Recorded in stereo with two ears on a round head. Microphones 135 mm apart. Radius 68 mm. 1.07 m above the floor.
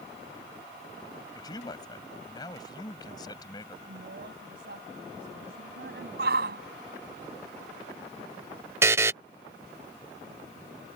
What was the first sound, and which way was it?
A man speaking, 25° left (ahead or behind).